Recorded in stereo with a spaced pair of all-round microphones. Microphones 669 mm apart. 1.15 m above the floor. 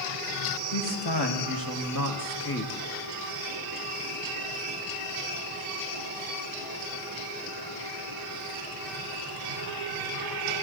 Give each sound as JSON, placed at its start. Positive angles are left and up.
{"t": 0.7, "sound": "a man speaking", "side_deg": 40, "distance_m": 2.0}